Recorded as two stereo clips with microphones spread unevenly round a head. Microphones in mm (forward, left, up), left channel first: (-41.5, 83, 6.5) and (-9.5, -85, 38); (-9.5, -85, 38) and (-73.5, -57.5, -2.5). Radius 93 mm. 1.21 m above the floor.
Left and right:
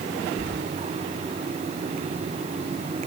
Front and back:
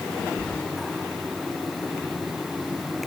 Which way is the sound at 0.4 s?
95° right.